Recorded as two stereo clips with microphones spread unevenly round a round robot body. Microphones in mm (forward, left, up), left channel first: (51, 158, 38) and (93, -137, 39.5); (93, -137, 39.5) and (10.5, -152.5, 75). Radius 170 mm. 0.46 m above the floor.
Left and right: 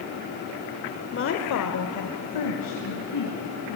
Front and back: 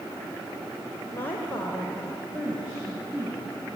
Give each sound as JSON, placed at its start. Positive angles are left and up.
{"t": 1.1, "sound": "a woman speaking", "azimuth_deg": 50, "distance_m": 1.6}